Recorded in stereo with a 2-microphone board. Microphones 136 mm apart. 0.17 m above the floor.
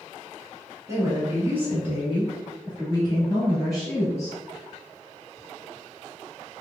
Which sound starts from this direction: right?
A woman speaking, at 0.9 s.